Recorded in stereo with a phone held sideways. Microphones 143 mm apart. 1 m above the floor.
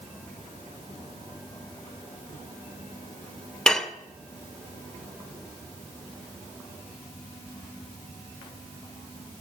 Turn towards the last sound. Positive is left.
turn(degrees=5)  # may be behind; listen again after turning